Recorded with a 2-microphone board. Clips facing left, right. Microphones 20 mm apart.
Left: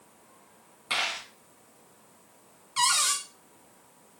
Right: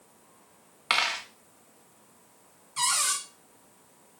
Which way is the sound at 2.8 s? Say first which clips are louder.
Left 3 dB; 45° left (ahead or behind).